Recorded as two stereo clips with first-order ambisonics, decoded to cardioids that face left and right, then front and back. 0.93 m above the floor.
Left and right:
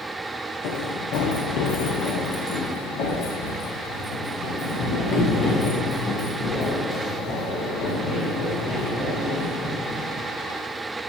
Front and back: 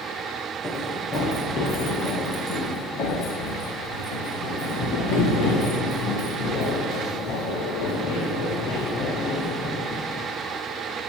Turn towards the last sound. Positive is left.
turn(degrees=30)